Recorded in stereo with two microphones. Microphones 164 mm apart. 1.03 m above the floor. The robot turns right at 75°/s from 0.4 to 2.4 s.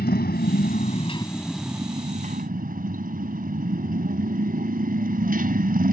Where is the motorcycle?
90° left; by 5.9 s 120° right.